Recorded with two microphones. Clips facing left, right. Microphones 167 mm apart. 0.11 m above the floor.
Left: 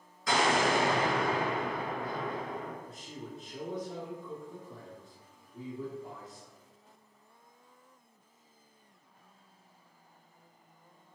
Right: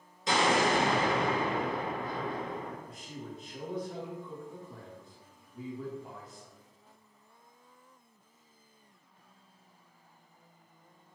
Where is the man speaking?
25° left (ahead or behind), 1.2 m.